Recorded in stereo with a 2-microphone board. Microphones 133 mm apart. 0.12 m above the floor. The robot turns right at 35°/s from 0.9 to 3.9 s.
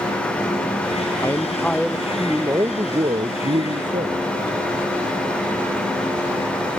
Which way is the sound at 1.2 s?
155° left.